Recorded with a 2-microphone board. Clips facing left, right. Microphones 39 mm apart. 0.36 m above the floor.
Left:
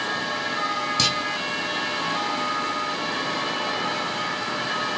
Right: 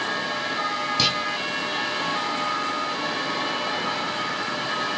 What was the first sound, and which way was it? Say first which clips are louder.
A clunk: right 2 dB; 10° right (ahead or behind).